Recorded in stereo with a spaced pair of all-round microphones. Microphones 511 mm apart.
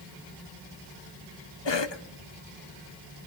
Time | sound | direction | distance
1.6 | a cough | 60° left (ahead or behind) | 0.9 m